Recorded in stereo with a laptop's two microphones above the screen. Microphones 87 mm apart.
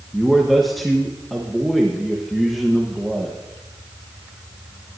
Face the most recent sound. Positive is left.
turn(degrees=0)  # may be behind; listen again after turning